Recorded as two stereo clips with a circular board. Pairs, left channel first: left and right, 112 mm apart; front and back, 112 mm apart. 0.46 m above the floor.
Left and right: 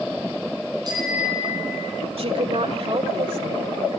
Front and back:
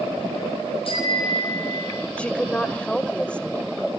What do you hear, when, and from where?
0.8 s a bicycle bell: 35° right, 10 m; by 1.9 s 40° right, 9 m
2.2 s a woman speaking: 80° right, 1.6 m